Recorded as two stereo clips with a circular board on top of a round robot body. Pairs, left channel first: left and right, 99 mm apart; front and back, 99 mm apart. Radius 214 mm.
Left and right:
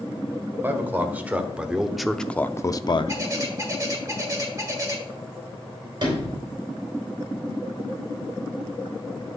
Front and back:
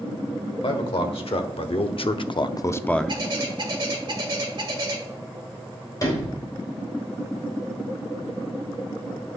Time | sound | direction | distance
0.6 | a man speaking | 25° right | 1.5 m
3.1 | a bird | 145° right | 1.7 m
6.0 | a sliding door | 50° right | 3.5 m